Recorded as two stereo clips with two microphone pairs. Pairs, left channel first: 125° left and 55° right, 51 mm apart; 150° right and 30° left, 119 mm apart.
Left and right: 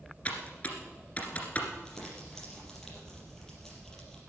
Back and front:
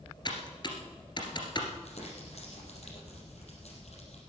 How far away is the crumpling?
About 4.5 m.